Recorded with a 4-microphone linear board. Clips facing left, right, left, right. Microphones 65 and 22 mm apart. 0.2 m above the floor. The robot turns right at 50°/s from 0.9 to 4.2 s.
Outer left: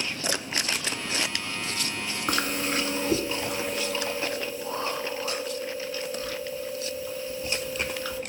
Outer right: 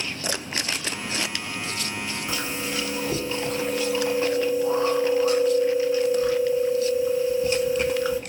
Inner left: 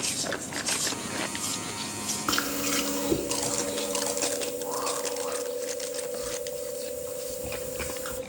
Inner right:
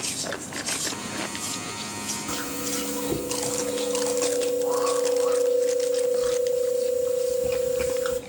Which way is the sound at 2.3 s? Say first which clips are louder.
Outer left 5 dB, inner left 5 dB; 105° left.